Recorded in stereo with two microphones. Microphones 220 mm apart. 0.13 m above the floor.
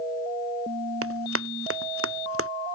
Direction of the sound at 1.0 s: 90° right.